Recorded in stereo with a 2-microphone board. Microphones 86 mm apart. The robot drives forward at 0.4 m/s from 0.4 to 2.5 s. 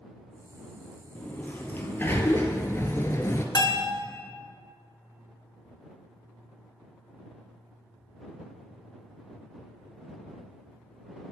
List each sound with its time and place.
1.1 s a sliding door: 20° left (ahead or behind), 1.2 m; by 3.5 s 35° left (ahead or behind), 0.7 m
3.5 s a bell: 55° left (ahead or behind), 0.7 m